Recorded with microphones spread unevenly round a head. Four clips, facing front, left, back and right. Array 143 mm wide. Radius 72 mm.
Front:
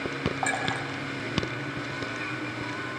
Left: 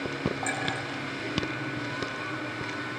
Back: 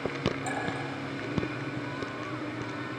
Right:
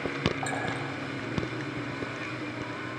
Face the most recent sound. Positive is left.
turn(degrees=0)